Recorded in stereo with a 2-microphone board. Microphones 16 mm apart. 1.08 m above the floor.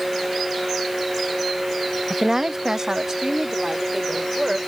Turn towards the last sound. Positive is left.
turn(degrees=-45)  # may be behind; listen again after turning